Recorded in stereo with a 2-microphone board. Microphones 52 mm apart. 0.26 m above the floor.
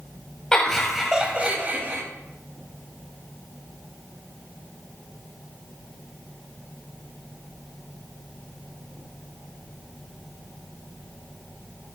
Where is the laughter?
15° left (ahead or behind), 1.4 m; by 2.0 s 45° right (ahead or behind), 1.6 m.